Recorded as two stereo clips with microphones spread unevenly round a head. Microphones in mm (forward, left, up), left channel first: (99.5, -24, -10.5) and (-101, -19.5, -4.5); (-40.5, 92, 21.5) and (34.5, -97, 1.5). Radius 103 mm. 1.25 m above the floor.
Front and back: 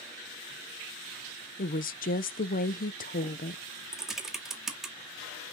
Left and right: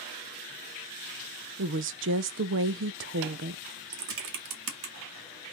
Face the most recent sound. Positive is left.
turn(degrees=-95)